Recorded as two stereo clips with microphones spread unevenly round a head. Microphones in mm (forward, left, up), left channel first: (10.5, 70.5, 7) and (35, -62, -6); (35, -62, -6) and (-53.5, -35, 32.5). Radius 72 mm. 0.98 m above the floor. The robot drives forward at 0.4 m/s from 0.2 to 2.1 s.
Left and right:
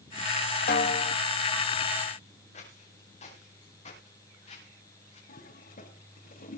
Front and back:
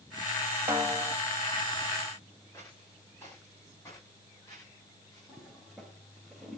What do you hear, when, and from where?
0.7 s a snare drum: 80° left, 1.3 m; by 1.1 s 90° left, 1.3 m
2.5 s footsteps: 60° left, 7.5 m; by 5.2 s 55° left, 11.5 m
5.3 s a toilet flushing: 75° left, 3 m